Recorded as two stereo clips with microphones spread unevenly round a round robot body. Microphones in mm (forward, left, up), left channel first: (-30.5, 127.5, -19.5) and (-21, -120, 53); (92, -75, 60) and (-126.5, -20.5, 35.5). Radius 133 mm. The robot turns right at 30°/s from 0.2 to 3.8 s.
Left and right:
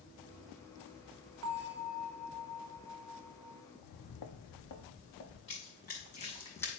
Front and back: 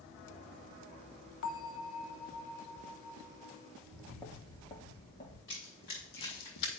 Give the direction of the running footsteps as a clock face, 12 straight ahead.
11 o'clock.